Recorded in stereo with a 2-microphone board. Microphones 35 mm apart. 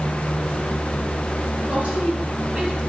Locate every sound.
1.7 s a woman speaking: 45° right (ahead or behind), 7 m; by 2.8 s 50° right (ahead or behind), 6 m